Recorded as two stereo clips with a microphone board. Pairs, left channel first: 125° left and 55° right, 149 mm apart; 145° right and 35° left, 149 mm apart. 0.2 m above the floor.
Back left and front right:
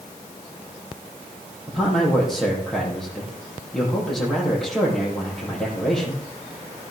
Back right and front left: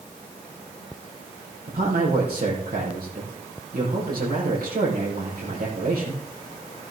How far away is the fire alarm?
I don't hear a fire alarm.